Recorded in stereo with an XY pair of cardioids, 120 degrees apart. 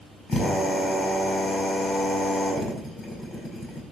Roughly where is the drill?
Ahead left.